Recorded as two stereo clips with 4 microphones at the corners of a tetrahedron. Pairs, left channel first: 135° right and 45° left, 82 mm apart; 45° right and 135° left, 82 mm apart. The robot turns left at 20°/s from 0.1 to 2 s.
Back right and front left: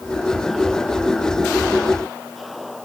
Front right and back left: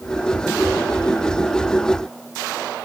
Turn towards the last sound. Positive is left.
No sound to turn to.